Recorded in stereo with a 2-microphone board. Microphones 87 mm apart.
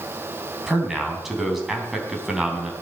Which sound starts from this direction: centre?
A man speaking, at 0.7 s.